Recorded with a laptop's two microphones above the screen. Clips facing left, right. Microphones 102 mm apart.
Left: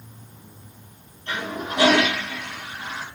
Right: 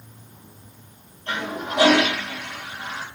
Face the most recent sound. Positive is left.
turn(degrees=-35)  # may be behind; listen again after turning